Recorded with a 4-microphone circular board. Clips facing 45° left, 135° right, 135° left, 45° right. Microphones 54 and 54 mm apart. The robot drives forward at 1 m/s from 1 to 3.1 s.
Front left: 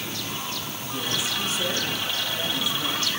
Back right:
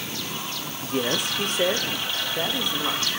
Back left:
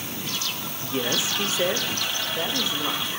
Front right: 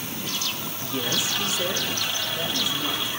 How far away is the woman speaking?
About 0.8 m.